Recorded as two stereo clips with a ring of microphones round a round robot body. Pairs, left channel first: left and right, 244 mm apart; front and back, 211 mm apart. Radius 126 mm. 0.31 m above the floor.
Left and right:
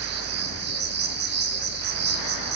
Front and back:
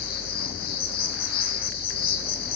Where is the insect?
45° right, 2.5 m.